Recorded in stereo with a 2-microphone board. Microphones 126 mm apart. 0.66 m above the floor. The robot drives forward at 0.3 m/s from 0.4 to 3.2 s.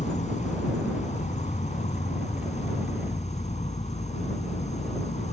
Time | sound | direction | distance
0.0 | an insect | 60° left (ahead or behind) | ?